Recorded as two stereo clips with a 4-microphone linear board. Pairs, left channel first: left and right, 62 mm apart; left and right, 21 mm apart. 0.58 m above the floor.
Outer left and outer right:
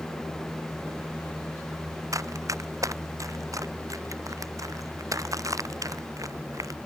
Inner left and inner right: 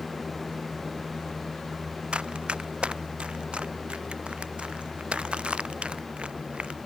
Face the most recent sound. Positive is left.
turn(degrees=-80)